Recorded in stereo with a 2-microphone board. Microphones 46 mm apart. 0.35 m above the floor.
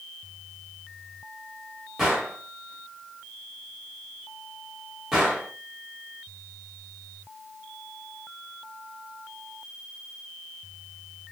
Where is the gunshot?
10° right (ahead or behind), 1.3 m.